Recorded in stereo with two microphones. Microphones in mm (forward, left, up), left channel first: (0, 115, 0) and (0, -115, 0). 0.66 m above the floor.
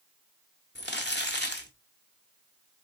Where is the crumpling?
50° left (ahead or behind), 0.8 m.